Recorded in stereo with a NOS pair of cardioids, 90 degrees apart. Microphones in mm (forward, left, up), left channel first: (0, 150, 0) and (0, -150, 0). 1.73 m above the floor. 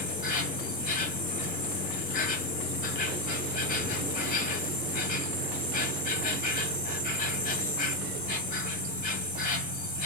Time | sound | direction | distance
0.0 | an insect | 30° left | 1.6 m